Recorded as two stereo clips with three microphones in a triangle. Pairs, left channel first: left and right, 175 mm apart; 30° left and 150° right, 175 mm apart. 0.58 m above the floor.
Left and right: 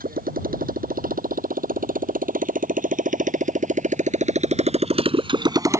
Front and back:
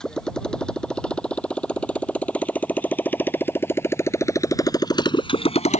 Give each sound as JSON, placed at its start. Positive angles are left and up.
{"t": 0.0, "sound": "a motorcycle", "azimuth_deg": -55}